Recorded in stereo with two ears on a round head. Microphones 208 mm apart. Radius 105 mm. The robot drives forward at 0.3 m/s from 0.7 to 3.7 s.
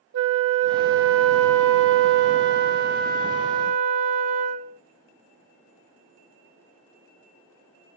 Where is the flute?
55° right (ahead or behind), 0.5 m; by 4.8 s 30° right (ahead or behind), 0.8 m.